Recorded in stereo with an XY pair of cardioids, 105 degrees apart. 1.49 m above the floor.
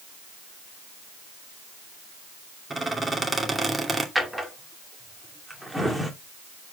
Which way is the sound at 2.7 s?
25° right.